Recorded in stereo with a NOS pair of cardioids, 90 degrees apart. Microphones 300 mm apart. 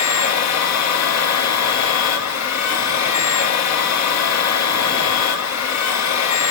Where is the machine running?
60° left, 1.0 m.